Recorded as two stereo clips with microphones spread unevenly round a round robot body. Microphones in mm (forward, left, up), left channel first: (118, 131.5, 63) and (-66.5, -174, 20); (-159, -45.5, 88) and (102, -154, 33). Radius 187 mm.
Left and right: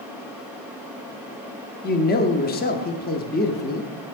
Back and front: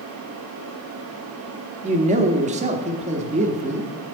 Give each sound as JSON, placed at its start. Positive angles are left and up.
{"t": 1.8, "sound": "a man speaking", "azimuth_deg": 0, "distance_m": 0.9}